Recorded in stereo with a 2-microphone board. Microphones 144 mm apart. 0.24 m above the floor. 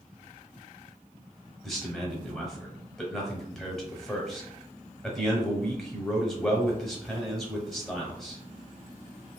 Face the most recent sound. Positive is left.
turn(degrees=0)  # may be behind; listen again after turning